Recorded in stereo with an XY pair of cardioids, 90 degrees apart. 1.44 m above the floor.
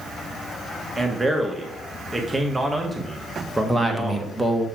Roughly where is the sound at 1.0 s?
Ahead.